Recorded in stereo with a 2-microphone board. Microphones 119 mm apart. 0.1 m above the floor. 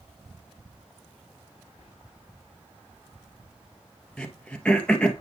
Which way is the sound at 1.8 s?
55° left (ahead or behind).